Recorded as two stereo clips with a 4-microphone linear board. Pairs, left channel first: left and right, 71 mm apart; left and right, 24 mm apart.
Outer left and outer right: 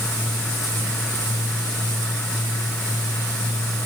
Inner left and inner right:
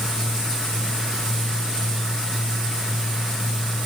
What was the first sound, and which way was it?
Only background noise.